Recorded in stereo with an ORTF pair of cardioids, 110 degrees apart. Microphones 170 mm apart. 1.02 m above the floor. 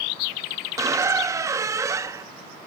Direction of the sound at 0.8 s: 20° right.